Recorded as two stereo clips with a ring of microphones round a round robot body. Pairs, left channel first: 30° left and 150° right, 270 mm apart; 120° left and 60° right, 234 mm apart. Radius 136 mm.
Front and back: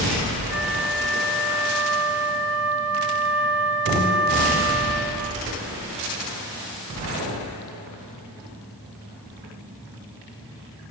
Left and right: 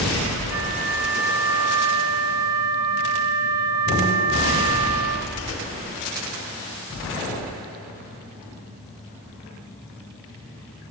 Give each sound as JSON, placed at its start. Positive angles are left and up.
{"t": 0.5, "sound": "a flute", "azimuth_deg": -65, "distance_m": 7.5}